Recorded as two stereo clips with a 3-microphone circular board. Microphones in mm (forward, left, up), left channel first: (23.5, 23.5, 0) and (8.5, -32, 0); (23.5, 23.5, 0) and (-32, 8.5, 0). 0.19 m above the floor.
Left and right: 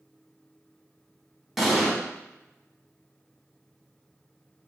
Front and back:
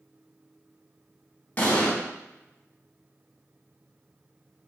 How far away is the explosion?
About 0.8 m.